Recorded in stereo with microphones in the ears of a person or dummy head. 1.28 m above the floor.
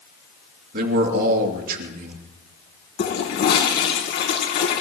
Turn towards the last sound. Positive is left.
turn(degrees=50)  # may be behind; listen again after turning